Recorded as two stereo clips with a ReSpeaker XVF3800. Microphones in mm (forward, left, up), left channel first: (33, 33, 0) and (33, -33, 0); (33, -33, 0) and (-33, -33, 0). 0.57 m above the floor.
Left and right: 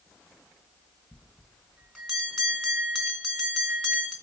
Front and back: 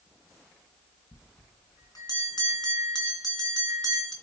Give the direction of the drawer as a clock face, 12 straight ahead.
I don't hear a drawer.